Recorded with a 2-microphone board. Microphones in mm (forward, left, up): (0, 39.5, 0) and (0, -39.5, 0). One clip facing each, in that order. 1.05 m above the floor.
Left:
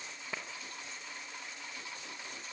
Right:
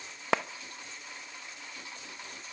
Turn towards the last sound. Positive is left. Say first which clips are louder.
# right 14 dB
turn(degrees=-85)